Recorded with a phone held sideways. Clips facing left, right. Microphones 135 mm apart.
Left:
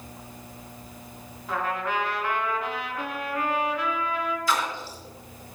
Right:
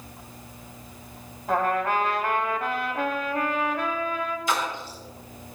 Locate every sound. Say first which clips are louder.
1.5 s a trumpet: right 5 dB; 50° right (ahead or behind), 1.8 m
4.5 s a splash: even; 20° right (ahead or behind), 4 m